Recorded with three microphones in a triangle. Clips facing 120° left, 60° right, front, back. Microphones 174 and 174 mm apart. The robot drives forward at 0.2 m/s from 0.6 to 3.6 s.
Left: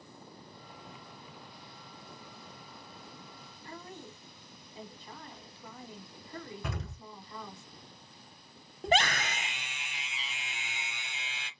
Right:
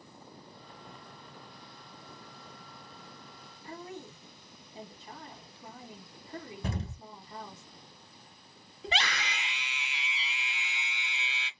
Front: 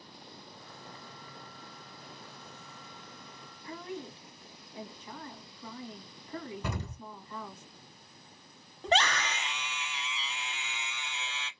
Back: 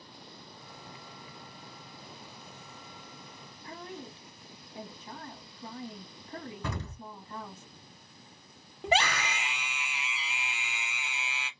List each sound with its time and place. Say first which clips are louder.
3.6 s a woman speaking: right 3 dB, front 3 dB; 130° right, 1.1 m
6.6 s an explosion: right 3 dB, even; 75° right, 0.9 m
8.8 s a scream: left 6 dB, even; 105° left, 0.6 m